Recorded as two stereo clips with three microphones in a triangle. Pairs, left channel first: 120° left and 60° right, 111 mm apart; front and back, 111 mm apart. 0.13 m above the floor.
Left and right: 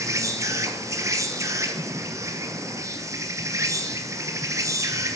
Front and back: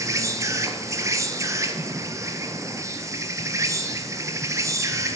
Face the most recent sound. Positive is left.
turn(degrees=-120)